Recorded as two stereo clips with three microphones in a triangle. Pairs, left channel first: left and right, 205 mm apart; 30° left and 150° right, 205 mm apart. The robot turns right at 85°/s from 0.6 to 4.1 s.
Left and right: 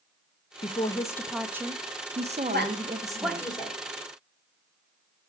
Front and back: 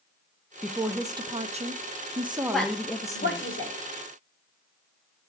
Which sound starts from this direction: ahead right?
A woman speaking, at 2.5 s.